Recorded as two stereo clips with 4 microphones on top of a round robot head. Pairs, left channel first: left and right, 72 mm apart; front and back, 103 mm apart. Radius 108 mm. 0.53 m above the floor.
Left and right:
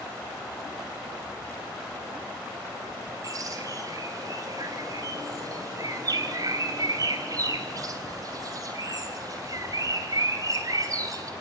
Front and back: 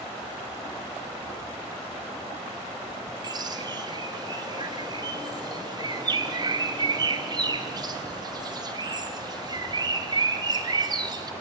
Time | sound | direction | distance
3.2 | a bird | 130° right | 3 m